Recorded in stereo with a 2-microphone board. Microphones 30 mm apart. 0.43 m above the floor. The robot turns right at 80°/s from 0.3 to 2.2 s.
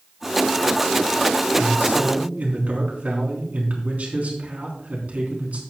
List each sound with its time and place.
1.6 s a man speaking: 100° right, 4 m; by 5.6 s 50° right, 4 m